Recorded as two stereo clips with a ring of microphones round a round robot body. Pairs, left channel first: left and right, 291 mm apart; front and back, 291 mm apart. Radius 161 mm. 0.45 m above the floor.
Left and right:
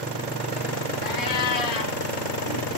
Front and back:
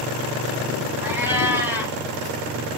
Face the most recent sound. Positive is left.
turn(degrees=95)